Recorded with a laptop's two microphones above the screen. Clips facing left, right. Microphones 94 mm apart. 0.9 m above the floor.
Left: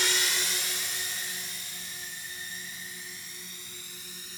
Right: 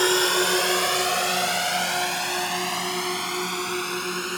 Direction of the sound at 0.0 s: 55° right (ahead or behind).